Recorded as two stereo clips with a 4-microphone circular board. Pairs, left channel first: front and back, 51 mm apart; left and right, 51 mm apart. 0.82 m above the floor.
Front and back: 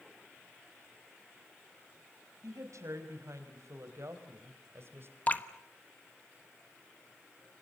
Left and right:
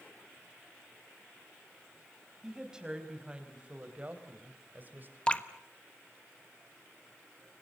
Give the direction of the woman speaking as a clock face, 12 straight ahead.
6 o'clock.